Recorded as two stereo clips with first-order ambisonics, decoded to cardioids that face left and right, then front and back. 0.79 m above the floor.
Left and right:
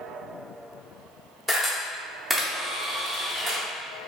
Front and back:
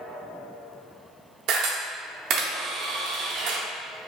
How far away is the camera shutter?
About 0.7 m.